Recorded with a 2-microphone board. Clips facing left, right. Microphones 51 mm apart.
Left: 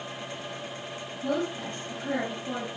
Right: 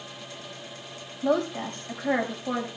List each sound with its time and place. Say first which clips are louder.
1.2 s a woman speaking: right 5 dB; 50° right (ahead or behind), 6 m